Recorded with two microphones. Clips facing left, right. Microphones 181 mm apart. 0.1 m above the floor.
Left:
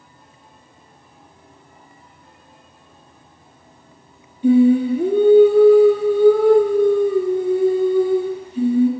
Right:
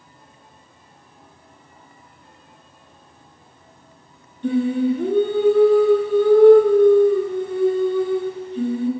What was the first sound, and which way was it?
Singing, 10° left (ahead or behind).